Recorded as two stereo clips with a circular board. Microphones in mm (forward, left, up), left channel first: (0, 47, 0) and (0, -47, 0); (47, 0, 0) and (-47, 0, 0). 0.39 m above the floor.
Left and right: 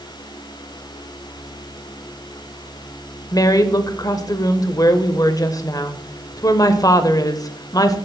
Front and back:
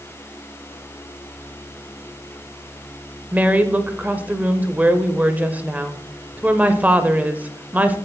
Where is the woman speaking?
115° left, 1.1 m.